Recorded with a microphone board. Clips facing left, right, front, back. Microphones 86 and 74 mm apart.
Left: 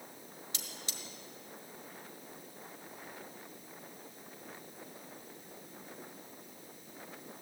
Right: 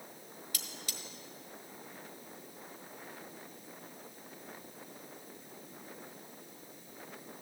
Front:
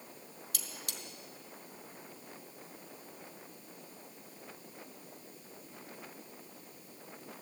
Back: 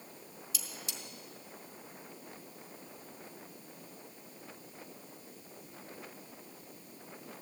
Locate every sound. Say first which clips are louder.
0.5 s cutlery clinking: right 1 dB, back 1 dB; 25° left, 1.4 m